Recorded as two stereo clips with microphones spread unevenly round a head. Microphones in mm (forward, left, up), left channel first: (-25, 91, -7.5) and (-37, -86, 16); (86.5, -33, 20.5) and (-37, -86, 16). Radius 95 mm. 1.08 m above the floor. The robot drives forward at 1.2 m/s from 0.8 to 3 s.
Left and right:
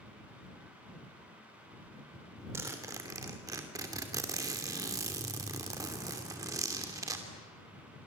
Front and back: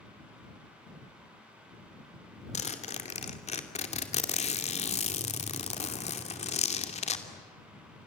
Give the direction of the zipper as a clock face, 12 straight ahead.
1 o'clock.